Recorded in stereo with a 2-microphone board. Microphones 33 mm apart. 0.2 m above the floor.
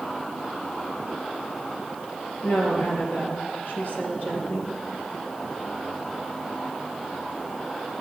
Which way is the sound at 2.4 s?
70° left (ahead or behind).